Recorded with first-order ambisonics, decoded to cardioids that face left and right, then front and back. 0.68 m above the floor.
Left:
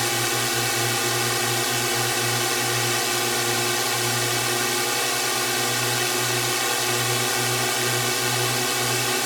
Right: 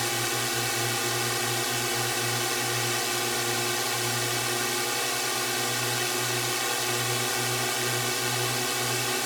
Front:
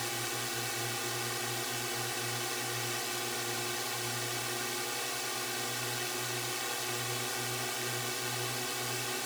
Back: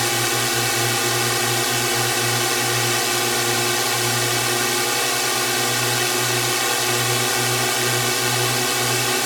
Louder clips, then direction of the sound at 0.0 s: Left 5 dB, back 16 dB; 160° left.